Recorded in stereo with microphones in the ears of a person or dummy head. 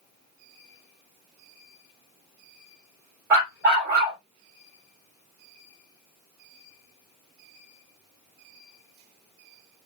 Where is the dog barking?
20° right (ahead or behind), 1.4 m.